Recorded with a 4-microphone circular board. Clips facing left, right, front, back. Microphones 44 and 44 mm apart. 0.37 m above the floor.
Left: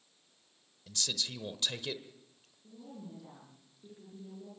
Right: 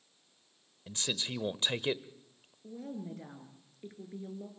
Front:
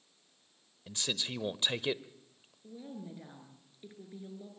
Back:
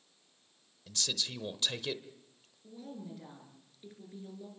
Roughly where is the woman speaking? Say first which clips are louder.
Right 7 dB, even; right.